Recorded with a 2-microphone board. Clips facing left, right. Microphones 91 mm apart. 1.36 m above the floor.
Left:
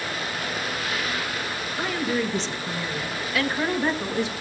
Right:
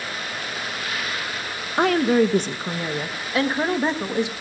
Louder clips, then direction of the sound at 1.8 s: Right 9 dB; 60° right (ahead or behind).